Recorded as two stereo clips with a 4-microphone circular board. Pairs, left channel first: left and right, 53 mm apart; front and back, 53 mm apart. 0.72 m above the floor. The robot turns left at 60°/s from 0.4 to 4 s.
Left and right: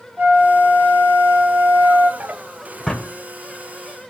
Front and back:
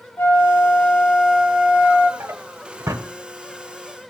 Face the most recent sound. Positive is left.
turn(degrees=105)